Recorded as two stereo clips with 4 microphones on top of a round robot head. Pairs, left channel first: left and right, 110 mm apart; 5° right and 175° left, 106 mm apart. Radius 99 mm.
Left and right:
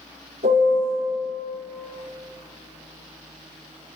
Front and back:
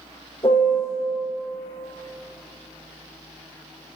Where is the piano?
65° right, 3 m.